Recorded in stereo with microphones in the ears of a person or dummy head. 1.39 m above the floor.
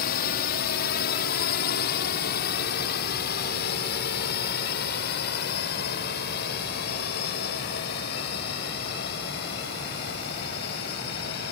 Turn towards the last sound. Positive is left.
turn(degrees=55)  # may be behind; listen again after turning